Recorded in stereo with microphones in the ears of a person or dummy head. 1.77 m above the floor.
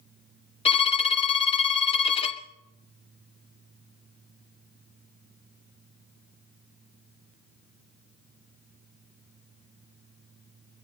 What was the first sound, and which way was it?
A violin, 30° left (ahead or behind).